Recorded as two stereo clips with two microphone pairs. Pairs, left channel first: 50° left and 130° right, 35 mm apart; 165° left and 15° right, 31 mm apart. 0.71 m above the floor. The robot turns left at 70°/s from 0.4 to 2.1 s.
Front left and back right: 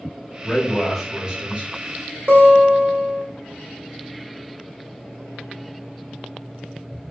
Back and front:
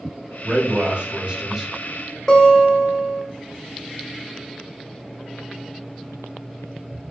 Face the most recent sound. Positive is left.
turn(degrees=-120)